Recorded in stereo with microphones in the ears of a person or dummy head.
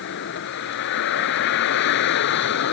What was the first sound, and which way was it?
A vehicle, 70° left (ahead or behind).